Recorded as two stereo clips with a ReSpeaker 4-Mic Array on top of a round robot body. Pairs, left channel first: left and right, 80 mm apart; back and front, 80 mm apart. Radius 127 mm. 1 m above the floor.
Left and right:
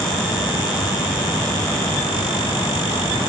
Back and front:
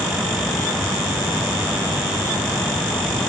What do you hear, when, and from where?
Only background noise.